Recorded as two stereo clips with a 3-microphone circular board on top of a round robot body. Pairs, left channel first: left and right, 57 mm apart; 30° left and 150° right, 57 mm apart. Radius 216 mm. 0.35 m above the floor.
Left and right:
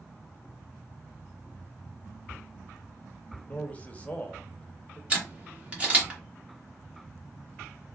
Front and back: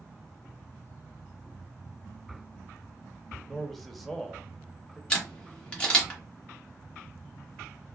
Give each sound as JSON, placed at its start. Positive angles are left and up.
{"t": 3.5, "sound": "a man speaking", "azimuth_deg": 115, "distance_m": 1.0}
{"t": 5.1, "sound": "a camera shutter", "azimuth_deg": -35, "distance_m": 1.7}